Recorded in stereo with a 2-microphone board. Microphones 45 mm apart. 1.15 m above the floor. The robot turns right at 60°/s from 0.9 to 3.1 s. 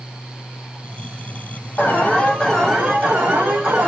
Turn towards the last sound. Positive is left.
turn(degrees=-145)